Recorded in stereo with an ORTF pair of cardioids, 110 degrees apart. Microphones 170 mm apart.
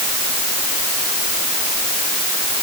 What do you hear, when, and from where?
Only background noise.